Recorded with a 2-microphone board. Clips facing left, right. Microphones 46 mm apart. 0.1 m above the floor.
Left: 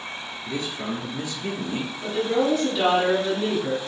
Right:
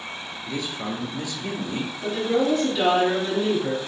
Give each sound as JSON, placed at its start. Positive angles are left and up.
{"t": 0.5, "sound": "a man speaking", "side_deg": 30, "distance_m": 1.6}
{"t": 2.0, "sound": "a woman speaking", "side_deg": 5, "distance_m": 2.0}